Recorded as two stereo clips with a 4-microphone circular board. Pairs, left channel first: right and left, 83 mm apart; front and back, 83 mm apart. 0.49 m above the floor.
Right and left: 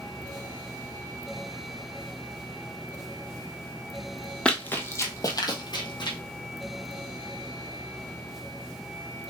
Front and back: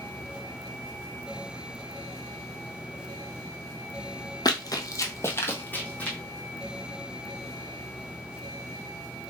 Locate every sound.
4.5 s running footsteps: 15° right, 0.8 m; by 6.2 s 75° right, 1.3 m